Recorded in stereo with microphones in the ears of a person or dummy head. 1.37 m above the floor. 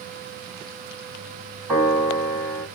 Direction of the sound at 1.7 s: 10° left (ahead or behind).